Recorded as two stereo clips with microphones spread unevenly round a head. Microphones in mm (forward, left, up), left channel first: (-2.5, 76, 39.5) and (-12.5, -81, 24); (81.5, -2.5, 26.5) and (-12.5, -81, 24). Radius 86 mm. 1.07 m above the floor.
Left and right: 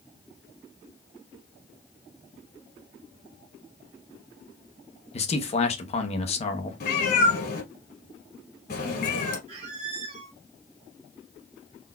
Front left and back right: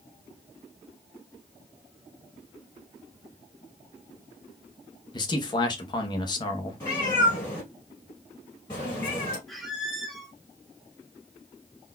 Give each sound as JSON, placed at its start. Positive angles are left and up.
{"t": 5.1, "sound": "a man speaking", "azimuth_deg": 65, "distance_m": 0.8}
{"t": 6.8, "sound": "a cat meowing", "azimuth_deg": 110, "distance_m": 2.0}
{"t": 9.5, "sound": "a squeak", "azimuth_deg": -50, "distance_m": 0.9}